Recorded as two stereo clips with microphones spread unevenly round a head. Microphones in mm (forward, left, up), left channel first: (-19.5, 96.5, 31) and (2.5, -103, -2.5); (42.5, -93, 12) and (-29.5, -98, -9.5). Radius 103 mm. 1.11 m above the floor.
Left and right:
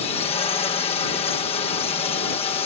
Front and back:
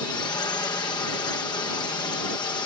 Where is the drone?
35° left.